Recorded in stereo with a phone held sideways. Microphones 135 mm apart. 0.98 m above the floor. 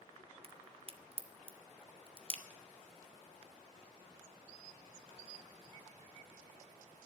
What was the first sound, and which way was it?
A crack, 45° right (ahead or behind).